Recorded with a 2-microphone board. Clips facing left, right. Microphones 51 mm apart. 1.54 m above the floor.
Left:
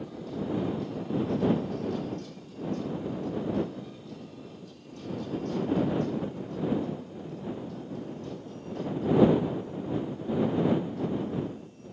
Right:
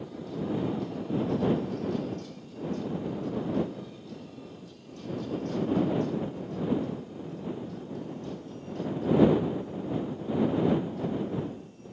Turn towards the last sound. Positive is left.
No sound to turn to.